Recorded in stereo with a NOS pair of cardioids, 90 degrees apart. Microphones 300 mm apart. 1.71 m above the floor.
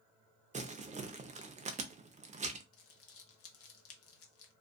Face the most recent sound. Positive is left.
turn(degrees=50)